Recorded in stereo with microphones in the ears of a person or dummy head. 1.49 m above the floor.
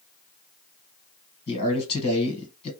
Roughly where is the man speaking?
Left.